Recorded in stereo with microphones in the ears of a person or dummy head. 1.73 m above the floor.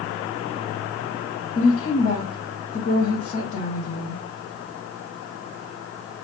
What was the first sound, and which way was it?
A woman speaking, 30° left (ahead or behind).